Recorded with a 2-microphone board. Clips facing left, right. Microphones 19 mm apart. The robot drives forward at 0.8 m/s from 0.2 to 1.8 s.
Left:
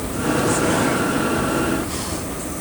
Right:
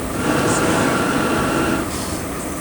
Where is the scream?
No scream in this recording.